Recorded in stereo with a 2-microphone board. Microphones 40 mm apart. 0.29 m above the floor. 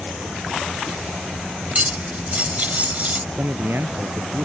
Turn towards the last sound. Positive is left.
turn(degrees=-75)  # may be behind; listen again after turning